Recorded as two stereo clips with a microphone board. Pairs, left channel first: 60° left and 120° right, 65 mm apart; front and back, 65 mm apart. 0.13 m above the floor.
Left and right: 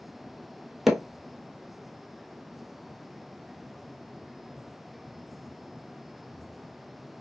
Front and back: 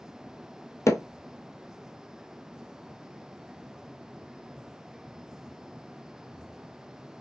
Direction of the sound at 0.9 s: 35° right.